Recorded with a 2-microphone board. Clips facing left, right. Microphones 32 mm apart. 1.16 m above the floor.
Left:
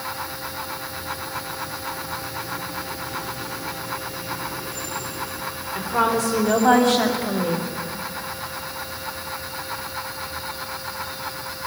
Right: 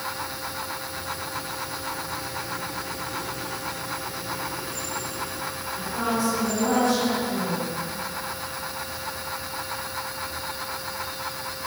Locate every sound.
5.8 s a woman speaking: 70° left (ahead or behind), 4 m; by 7.7 s 80° left, 1.8 m